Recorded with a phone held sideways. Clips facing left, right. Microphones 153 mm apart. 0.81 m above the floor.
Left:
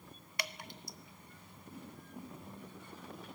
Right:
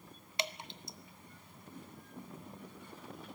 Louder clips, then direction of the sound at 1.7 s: Left 1 dB; 10° left (ahead or behind).